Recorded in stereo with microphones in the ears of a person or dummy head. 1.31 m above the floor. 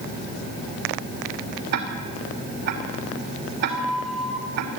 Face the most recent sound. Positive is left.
turn(degrees=-5)  # may be behind; listen again after turning